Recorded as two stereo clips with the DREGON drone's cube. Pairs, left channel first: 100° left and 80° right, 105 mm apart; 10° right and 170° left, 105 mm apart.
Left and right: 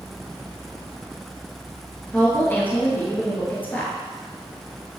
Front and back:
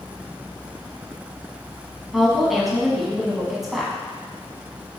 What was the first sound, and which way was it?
A woman speaking, 85° left.